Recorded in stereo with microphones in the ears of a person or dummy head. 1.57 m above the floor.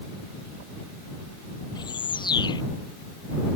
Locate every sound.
1.8 s a bird: 25° left (ahead or behind)